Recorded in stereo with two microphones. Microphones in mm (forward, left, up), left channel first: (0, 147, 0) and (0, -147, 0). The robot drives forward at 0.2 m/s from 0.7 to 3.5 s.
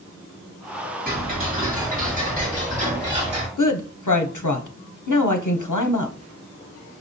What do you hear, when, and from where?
1.1 s ticking: 30° right (ahead or behind), 1.3 m; by 3.5 s 20° right (ahead or behind), 1.7 m
3.6 s a woman speaking: 80° left, 0.6 m